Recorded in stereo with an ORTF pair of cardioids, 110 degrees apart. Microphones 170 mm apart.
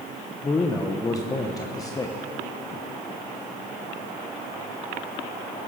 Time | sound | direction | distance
0.4 | a man speaking | 20° left | 1.0 m